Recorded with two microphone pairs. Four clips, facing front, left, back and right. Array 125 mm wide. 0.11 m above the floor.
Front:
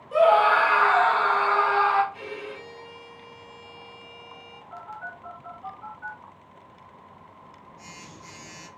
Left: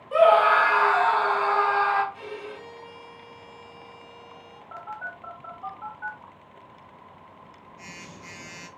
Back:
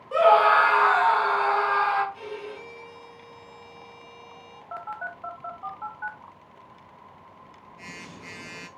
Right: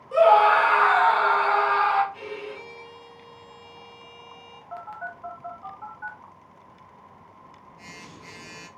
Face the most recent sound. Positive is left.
turn(degrees=180)